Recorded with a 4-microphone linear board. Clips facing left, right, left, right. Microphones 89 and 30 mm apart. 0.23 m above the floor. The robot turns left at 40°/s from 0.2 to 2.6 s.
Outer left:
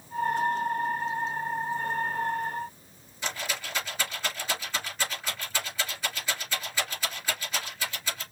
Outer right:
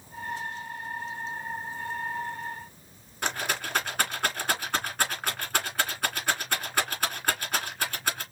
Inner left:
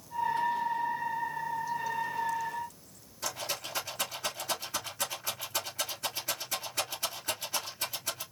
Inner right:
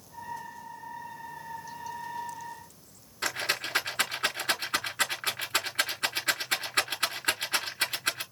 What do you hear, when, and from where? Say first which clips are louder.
3.2 s a rattle: outer right 4 dB, inner right 6 dB; 65° right (ahead or behind), 3.5 m